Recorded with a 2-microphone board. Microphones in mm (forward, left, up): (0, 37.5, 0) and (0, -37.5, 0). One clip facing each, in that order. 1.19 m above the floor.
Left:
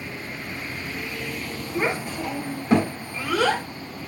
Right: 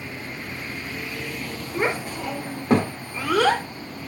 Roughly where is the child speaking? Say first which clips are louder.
Even; right.